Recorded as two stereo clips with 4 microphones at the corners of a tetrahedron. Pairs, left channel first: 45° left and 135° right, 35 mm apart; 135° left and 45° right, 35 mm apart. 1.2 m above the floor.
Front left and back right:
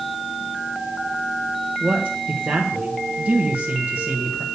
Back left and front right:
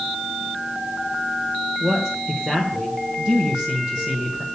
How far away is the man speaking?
About 1.3 m.